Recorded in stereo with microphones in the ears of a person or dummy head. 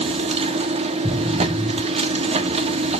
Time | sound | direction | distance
0.0 | a machine running | 30° right (ahead or behind) | 1.7 m
1.0 | an explosion | 10° right (ahead or behind) | 7 m